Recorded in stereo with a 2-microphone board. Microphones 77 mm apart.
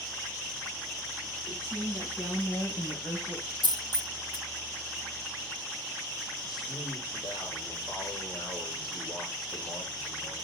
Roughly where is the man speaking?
Left.